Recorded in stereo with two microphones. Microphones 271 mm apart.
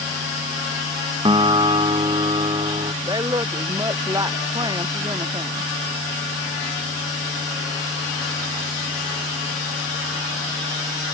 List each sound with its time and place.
1.2 s a guitar: 20° right (ahead or behind)
3.0 s a woman speaking: 15° right (ahead or behind)